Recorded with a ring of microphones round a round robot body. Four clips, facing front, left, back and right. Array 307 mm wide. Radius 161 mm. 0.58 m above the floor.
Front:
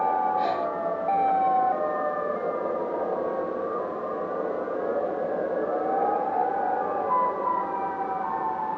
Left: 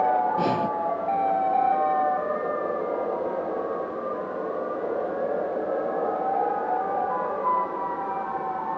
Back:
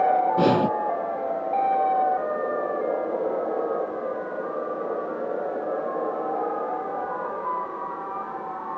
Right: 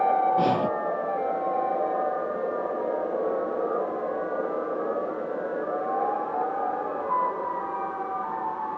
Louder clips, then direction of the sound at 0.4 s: Right 1 dB, back 6 dB; 175° right.